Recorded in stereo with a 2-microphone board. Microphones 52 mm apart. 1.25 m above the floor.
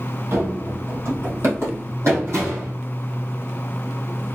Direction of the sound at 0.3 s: 50° right (ahead or behind).